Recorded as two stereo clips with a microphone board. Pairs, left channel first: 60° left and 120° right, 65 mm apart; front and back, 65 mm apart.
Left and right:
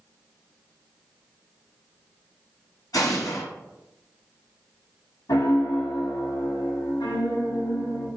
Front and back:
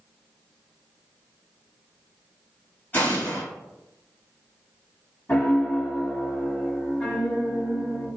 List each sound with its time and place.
2.9 s an explosion: 60° left, 1.7 m
5.3 s a piano: 75° left, 1.0 m